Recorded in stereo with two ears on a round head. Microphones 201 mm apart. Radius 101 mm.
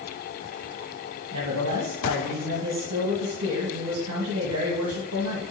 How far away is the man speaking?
About 1.7 m.